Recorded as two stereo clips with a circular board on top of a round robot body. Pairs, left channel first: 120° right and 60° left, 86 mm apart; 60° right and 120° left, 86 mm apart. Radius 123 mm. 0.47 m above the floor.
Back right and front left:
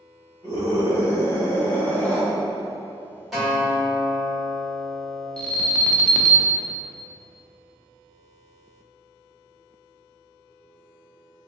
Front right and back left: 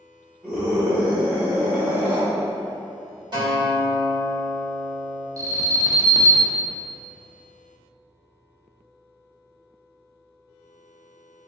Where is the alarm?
165° left, 0.6 m.